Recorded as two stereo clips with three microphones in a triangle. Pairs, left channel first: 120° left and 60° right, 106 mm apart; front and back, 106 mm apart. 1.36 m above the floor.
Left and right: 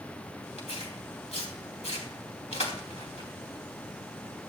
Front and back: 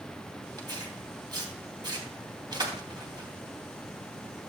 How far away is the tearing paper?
About 3 m.